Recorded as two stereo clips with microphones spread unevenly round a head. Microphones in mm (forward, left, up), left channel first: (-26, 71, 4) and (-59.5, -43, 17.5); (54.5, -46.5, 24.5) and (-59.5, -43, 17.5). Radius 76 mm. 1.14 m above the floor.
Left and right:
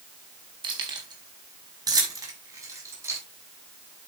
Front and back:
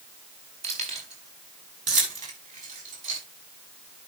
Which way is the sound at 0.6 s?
155° right.